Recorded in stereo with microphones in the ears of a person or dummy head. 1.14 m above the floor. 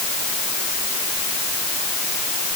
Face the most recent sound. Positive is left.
No sound to turn to.